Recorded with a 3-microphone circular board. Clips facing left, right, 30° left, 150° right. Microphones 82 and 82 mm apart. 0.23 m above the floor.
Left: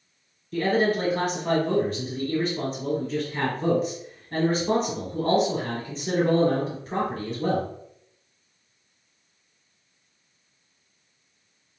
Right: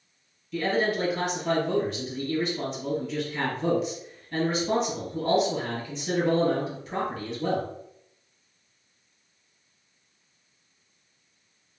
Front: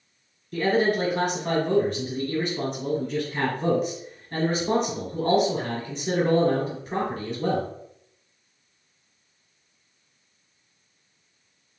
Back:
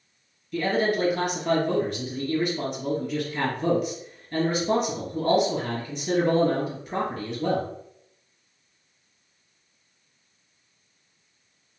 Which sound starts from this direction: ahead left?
A man speaking, at 0.5 s.